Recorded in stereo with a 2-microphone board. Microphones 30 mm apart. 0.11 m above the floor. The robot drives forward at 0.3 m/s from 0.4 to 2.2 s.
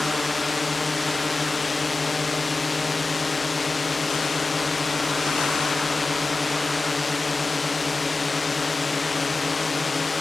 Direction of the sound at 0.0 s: Centre (ahead or behind).